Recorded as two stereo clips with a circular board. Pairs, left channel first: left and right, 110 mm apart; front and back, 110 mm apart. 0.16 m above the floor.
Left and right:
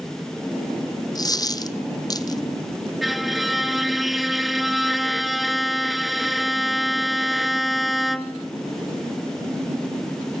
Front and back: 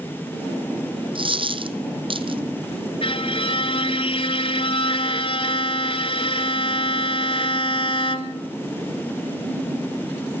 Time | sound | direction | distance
1.1 | a dropped coin | 145° left | 1.5 m
3.0 | a violin | straight ahead | 1.4 m